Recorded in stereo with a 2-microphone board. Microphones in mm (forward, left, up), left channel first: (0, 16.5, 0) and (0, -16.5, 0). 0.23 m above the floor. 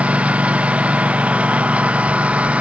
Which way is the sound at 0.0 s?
40° right (ahead or behind).